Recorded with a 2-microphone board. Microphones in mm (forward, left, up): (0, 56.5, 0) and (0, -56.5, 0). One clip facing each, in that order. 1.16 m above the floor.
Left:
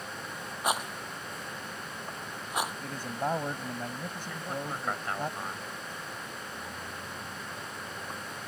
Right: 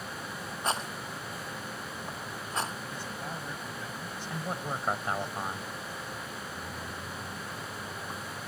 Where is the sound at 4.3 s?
20° right (ahead or behind).